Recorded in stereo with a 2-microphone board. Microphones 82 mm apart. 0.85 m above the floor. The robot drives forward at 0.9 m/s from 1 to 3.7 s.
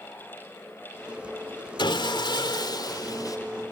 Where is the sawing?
75° left (ahead or behind), 2.5 m; by 3.4 s 50° left (ahead or behind), 3 m.